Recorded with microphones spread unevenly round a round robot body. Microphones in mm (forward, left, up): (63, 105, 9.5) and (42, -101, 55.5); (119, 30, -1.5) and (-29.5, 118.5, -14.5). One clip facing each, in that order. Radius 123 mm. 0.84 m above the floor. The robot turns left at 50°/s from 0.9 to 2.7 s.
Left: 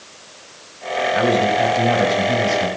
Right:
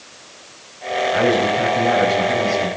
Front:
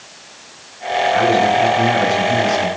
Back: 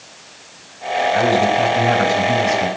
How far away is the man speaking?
About 6 m.